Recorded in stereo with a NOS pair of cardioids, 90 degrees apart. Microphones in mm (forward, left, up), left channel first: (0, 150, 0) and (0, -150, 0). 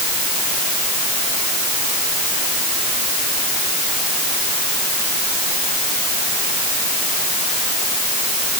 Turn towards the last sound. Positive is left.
No sound to turn to.